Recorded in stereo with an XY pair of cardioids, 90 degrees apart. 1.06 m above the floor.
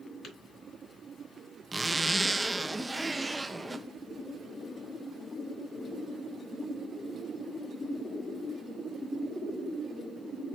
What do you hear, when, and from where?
0.2 s tapping: 60° left, 2.5 m
1.7 s a zipper: 10° right, 0.6 m